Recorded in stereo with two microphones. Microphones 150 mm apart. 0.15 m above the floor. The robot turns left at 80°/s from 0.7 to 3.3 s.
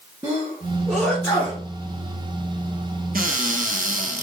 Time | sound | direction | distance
0.2 | a sneeze | 20° right (ahead or behind) | 2 m
3.1 | a cupboard door | 75° right (ahead or behind) | 0.9 m